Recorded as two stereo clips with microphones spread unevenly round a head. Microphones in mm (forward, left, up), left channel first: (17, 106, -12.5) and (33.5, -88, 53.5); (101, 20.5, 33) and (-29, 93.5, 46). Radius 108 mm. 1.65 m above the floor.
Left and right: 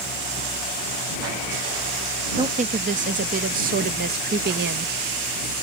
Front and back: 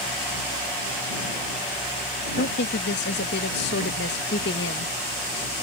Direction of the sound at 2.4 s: 35° right.